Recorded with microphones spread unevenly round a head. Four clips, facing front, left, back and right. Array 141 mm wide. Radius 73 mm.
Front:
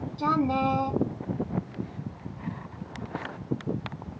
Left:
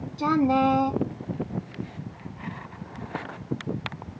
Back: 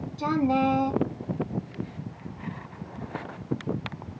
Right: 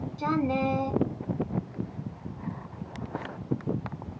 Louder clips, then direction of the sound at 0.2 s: Left 6 dB, back 1 dB; 75° left.